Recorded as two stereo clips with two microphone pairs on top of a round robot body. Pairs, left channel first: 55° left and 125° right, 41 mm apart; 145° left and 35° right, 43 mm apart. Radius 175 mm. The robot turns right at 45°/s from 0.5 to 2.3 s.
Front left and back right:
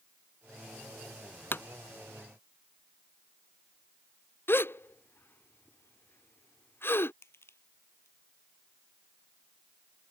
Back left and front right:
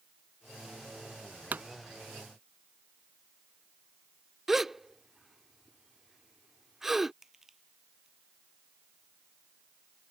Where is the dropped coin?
No dropped coin in this recording.